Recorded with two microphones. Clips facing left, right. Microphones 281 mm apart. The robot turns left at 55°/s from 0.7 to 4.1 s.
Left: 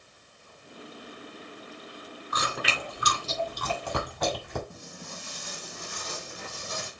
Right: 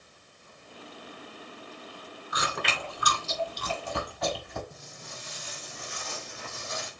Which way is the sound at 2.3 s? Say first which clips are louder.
Left 1 dB; 15° right (ahead or behind).